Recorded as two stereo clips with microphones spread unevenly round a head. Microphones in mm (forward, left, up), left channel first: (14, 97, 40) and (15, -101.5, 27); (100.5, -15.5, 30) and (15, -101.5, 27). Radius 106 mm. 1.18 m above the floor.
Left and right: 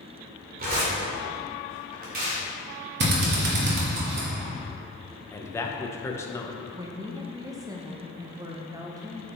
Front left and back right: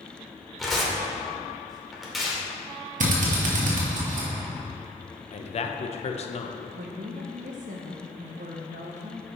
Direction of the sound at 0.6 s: 45° right.